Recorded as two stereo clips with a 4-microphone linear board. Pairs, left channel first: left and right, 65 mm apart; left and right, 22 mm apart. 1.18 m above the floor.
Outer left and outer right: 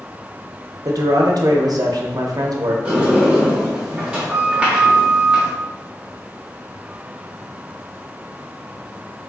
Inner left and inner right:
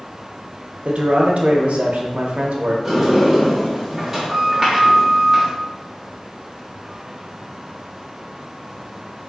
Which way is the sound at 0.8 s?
75° right (ahead or behind).